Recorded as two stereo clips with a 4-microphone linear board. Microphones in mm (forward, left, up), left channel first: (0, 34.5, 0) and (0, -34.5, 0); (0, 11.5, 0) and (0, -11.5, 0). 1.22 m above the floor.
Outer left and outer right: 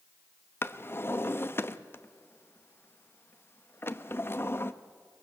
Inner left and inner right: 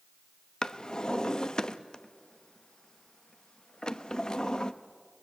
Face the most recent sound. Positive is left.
turn(degrees=35)  # may be behind; listen again after turning